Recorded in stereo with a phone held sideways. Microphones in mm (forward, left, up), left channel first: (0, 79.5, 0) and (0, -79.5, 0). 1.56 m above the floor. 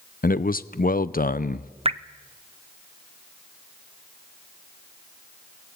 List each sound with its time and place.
0.2 s a man speaking: 65° left (ahead or behind), 0.6 m
1.9 s dripping: 40° right (ahead or behind), 0.6 m